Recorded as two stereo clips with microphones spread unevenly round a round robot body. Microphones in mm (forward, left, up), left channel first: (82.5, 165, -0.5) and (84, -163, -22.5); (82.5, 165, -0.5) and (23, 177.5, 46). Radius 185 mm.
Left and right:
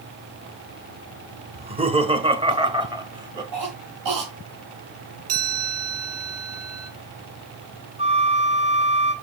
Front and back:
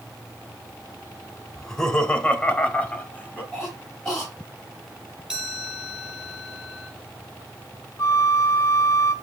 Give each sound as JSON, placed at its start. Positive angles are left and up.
{"t": 1.6, "sound": "laughter", "azimuth_deg": -30, "distance_m": 1.5}
{"t": 3.5, "sound": "a cough", "azimuth_deg": -80, "distance_m": 3.0}
{"t": 5.3, "sound": "a chime", "azimuth_deg": -115, "distance_m": 5.0}
{"t": 8.0, "sound": "a flute", "azimuth_deg": -20, "distance_m": 1.4}